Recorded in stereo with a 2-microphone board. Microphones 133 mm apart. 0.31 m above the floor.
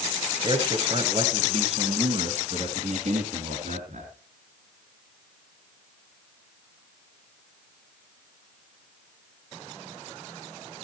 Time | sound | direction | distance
0.4 | a man speaking | 40° right (ahead or behind) | 1.4 m